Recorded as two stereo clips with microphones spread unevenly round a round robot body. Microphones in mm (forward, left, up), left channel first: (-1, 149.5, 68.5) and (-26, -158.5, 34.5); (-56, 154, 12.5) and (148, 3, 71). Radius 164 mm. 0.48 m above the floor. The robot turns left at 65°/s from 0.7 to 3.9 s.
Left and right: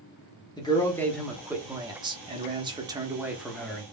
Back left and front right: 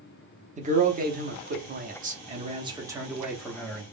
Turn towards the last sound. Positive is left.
turn(degrees=165)